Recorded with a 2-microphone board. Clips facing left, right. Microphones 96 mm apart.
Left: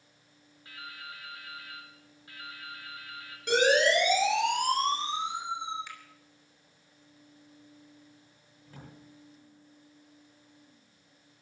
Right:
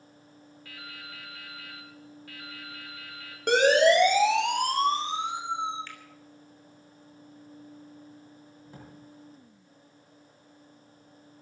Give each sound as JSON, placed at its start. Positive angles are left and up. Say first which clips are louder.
{"t": 0.7, "sound": "dripping", "louder": "left 1 dB", "side_deg": 25, "distance_m": 4.0}
{"t": 3.5, "sound": "a siren", "louder": "right 4 dB", "side_deg": -60, "distance_m": 4.5}
{"t": 5.9, "sound": "a finger snap", "louder": "even", "side_deg": 15, "distance_m": 3.0}
{"t": 8.7, "sound": "a drawer", "louder": "right 1 dB", "side_deg": -20, "distance_m": 8.0}